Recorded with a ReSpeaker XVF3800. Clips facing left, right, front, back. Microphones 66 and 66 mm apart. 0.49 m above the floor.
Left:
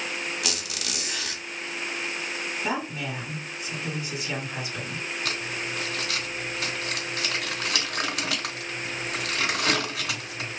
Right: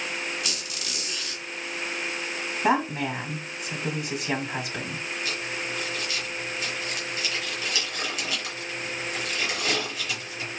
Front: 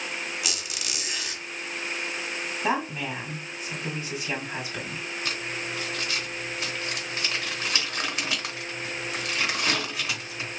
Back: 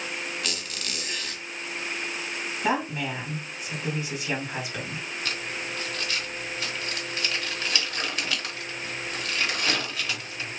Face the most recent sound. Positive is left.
turn(degrees=70)